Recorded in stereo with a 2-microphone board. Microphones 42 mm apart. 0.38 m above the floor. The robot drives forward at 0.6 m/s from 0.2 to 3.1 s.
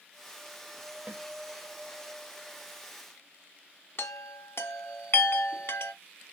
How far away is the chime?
About 0.6 m.